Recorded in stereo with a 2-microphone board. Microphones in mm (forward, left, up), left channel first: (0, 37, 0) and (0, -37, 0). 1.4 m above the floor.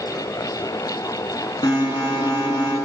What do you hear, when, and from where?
1.6 s an alarm: 80° left, 9.5 m